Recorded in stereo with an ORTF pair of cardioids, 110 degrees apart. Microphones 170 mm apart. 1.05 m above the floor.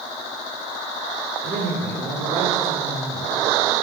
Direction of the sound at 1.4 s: 55° right.